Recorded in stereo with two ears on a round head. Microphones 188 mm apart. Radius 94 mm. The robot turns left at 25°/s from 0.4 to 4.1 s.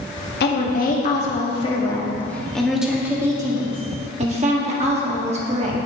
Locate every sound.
0.4 s a woman speaking: 55° left, 1.6 m; by 5.9 s 35° right, 1.6 m